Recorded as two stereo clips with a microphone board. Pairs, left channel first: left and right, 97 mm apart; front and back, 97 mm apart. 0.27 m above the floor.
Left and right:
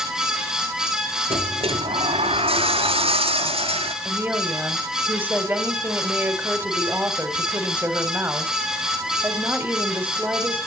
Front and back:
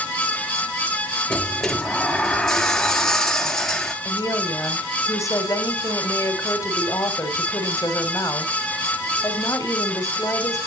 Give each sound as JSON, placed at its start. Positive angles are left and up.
{"t": 1.3, "sound": "a sliding door", "azimuth_deg": -85, "distance_m": 1.0}
{"t": 4.0, "sound": "a woman speaking", "azimuth_deg": -30, "distance_m": 1.7}